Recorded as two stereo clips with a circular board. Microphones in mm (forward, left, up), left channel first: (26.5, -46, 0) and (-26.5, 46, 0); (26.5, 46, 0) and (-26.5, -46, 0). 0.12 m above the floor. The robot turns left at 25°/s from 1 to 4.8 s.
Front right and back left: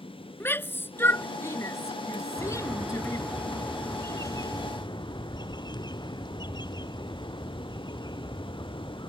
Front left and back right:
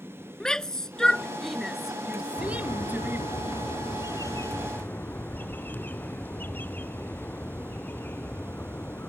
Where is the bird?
50° left; by 9.1 s 10° right.